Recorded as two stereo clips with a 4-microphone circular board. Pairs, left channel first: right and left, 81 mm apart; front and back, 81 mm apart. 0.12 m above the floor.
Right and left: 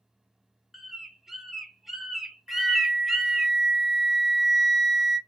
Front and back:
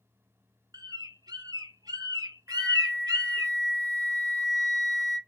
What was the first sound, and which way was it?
A bird, 175° left.